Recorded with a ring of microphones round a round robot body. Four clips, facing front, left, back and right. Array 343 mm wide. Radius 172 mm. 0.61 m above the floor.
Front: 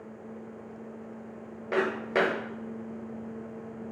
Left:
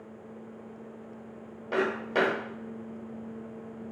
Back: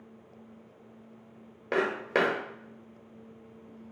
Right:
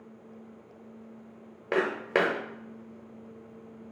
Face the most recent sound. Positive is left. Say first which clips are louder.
# right 1 dB, front 1 dB
turn(degrees=-115)